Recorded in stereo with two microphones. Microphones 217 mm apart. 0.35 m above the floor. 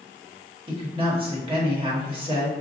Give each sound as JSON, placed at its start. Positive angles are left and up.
{"t": 0.7, "sound": "a woman speaking", "side_deg": -25, "distance_m": 1.2}